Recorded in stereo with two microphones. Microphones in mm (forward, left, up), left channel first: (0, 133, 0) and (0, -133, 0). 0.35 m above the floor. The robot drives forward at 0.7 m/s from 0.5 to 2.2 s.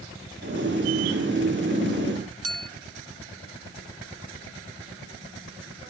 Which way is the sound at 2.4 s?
60° right (ahead or behind).